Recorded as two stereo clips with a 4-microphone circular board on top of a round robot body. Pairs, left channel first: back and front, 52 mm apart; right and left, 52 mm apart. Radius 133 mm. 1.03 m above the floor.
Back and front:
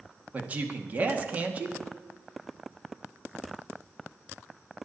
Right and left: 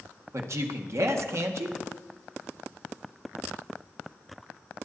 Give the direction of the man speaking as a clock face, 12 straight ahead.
10 o'clock.